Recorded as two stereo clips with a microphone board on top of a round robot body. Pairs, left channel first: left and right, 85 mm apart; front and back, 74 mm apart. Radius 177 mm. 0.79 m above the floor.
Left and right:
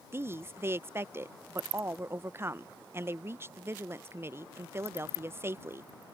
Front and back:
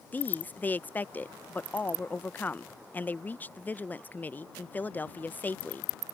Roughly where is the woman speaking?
Ahead right.